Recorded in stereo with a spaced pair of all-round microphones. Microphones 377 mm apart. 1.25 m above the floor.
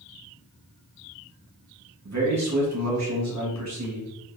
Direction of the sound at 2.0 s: 45° right (ahead or behind).